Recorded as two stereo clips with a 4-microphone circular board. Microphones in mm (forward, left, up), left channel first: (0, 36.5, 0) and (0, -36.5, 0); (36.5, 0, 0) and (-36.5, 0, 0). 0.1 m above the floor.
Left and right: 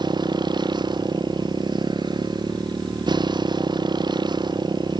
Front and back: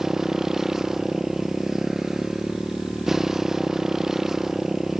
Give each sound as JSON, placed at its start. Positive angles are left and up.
{"t": 0.0, "sound": "a motorcycle", "azimuth_deg": -95}